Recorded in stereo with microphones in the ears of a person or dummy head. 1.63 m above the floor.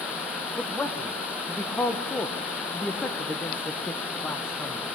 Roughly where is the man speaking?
Centre.